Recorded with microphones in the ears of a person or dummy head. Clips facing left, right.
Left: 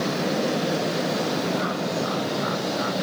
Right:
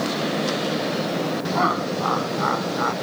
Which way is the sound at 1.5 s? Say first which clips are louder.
Right 2 dB; 70° right (ahead or behind).